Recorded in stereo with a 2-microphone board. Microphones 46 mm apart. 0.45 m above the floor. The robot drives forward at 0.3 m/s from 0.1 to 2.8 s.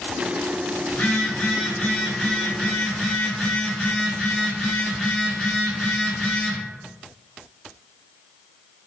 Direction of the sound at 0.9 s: 30° left (ahead or behind).